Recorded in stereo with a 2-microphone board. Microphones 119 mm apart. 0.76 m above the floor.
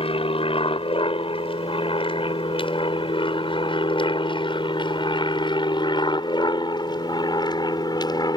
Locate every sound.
0.0 s an aircraft: 50° left (ahead or behind); by 8.4 s 35° left (ahead or behind)